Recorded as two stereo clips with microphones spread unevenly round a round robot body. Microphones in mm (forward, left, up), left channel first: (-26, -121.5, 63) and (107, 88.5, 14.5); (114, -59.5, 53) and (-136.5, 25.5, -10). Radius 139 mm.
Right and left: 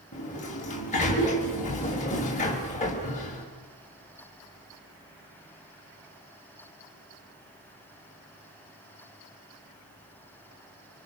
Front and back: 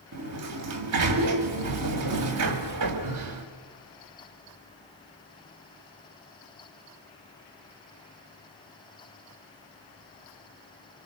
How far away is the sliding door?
About 2.5 m.